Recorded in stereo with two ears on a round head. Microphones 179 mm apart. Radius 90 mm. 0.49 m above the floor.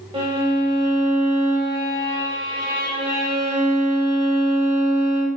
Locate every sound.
0.1 s a violin: 25° right (ahead or behind), 1.0 m